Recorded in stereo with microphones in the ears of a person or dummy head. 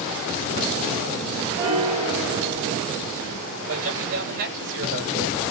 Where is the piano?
35° right (ahead or behind), 2.5 m.